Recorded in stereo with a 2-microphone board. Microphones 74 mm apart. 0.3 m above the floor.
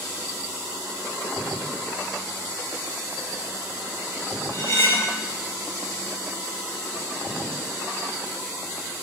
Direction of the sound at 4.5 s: 35° left (ahead or behind).